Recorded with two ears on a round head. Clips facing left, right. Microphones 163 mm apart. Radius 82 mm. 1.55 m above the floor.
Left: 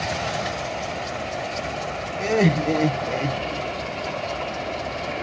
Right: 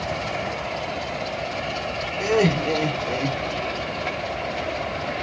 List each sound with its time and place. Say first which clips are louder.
2.2 s laughter: even; 10° left (ahead or behind), 0.9 m